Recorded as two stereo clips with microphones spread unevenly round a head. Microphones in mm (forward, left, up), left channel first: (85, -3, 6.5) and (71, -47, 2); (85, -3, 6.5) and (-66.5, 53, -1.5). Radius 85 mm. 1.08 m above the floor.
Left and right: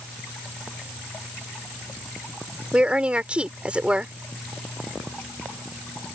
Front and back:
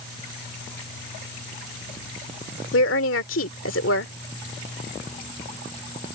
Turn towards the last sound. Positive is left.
turn(degrees=-40)